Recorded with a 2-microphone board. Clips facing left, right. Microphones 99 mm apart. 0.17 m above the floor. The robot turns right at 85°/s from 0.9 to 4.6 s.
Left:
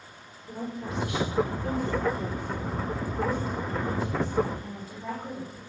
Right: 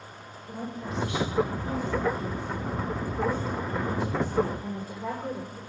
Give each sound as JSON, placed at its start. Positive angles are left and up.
{"t": 0.5, "sound": "a woman speaking", "azimuth_deg": 5, "distance_m": 7.0}